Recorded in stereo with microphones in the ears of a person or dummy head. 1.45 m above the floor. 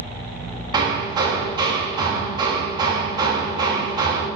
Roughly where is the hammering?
Right.